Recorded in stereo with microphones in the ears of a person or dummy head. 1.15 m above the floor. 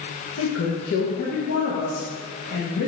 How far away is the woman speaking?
About 1.4 m.